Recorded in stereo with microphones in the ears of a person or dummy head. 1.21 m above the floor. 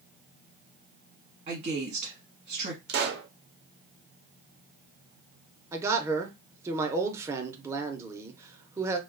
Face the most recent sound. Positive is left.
turn(degrees=-15)  # may be behind; listen again after turning